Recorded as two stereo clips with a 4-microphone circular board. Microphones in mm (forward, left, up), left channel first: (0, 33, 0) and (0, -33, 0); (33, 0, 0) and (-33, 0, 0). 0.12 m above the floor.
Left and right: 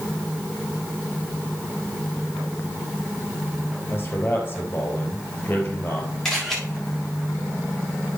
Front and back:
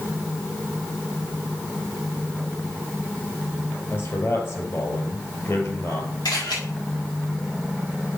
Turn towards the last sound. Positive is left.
turn(degrees=5)